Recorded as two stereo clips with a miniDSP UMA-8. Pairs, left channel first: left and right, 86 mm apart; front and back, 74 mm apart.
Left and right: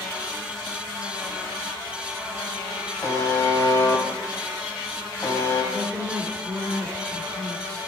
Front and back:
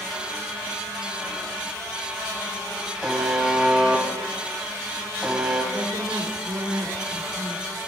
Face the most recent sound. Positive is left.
turn(degrees=-160)